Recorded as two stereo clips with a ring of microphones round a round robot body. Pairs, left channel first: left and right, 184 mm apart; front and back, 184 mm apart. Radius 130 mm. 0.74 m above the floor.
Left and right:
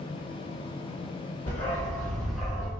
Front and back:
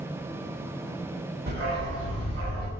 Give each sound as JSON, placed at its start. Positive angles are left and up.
{"t": 1.5, "sound": "a dog barking", "azimuth_deg": 150, "distance_m": 1.7}